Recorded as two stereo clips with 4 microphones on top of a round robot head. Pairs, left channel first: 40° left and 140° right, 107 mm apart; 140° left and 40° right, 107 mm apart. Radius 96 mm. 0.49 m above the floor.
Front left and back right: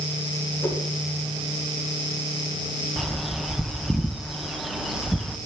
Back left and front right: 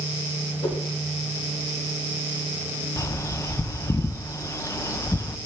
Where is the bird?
135° left, 0.5 m.